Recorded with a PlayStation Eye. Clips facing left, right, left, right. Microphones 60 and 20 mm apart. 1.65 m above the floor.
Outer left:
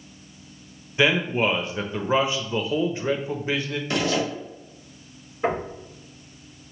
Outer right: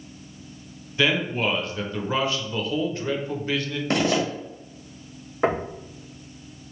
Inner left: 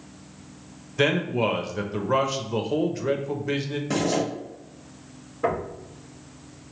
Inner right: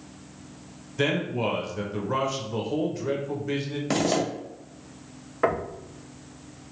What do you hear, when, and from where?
1.0 s a man speaking: 20° left (ahead or behind), 0.6 m
3.9 s a zipper: 40° right (ahead or behind), 1.4 m
5.4 s knocking: 75° right (ahead or behind), 1.1 m